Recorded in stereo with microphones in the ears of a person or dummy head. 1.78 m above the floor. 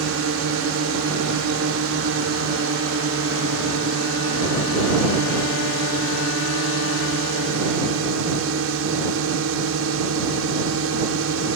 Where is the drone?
75° right (ahead or behind).